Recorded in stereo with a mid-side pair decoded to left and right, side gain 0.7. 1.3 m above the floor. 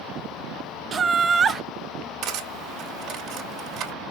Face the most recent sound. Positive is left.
turn(degrees=-55)